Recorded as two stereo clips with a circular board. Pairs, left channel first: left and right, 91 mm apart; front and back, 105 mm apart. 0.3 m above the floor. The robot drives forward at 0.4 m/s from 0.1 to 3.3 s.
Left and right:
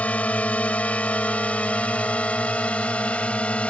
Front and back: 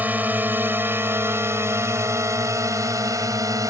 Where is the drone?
135° left; by 3.7 s 155° left.